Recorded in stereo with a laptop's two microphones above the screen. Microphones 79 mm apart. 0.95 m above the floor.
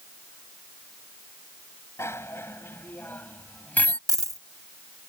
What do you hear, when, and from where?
2.0 s a bicycle bell: 35° left (ahead or behind); by 4.0 s 15° left (ahead or behind)
4.1 s a dropped coin: 50° right (ahead or behind)